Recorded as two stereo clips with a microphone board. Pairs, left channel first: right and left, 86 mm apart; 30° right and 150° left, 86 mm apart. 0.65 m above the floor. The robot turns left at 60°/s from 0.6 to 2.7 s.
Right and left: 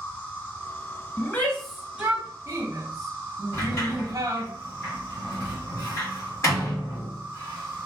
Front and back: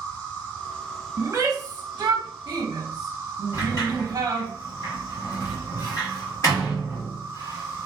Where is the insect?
45° right, 1.8 m; by 7.9 s 170° right, 1.8 m.